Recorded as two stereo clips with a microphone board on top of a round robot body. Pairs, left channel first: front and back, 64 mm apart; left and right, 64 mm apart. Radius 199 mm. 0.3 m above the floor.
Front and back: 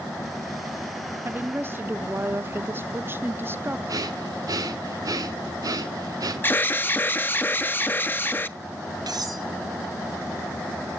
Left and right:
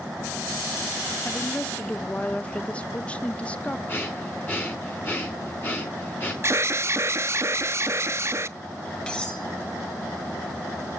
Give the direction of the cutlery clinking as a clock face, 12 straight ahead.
7 o'clock.